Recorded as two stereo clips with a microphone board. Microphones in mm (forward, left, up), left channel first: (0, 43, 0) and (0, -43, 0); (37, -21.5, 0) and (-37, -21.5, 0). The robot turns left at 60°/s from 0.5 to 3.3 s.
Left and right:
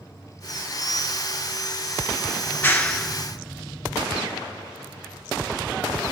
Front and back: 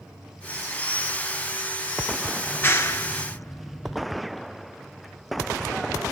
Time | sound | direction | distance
2.5 | a clap | 50° left | 1.2 m